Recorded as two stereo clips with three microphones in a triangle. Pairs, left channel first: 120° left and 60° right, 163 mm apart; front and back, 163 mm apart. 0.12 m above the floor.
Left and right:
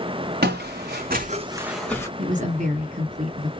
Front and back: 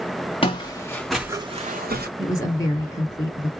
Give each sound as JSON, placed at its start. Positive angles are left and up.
{"t": 0.4, "sound": "footsteps", "azimuth_deg": -55, "distance_m": 0.9}
{"t": 2.2, "sound": "a woman speaking", "azimuth_deg": -65, "distance_m": 2.5}